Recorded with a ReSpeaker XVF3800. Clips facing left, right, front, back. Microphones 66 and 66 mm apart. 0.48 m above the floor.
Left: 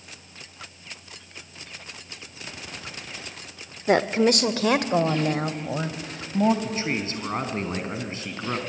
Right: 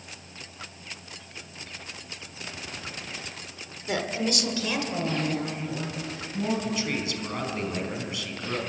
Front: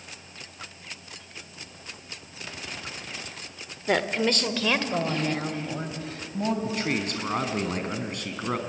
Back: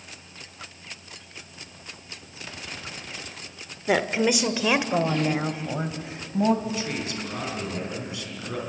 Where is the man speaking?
35° left, 3.5 m.